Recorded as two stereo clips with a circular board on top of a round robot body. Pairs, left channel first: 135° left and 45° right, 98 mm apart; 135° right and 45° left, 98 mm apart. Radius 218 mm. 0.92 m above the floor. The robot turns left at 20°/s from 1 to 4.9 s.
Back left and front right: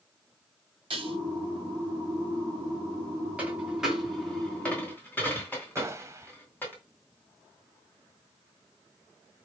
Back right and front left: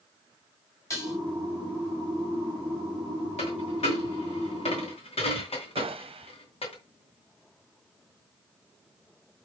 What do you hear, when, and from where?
0.9 s dishes clattering: 75° right, 3.5 m; by 1.2 s 80° right, 3.5 m
3.4 s a dropped coin: 120° right, 3 m; by 6.8 s 150° right, 3 m
5.8 s a gunshot: 15° left, 0.6 m